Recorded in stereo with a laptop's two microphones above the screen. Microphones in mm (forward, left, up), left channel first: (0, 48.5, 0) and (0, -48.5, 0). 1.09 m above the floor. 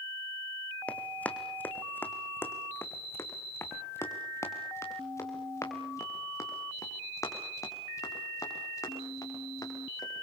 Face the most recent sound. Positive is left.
turn(degrees=35)  # may be behind; listen again after turning